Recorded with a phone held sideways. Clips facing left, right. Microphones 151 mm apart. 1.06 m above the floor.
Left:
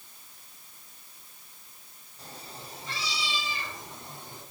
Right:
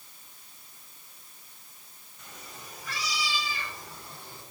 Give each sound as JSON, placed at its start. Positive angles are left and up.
{"t": 2.2, "sound": "a cat meowing", "side_deg": 35, "distance_m": 1.7}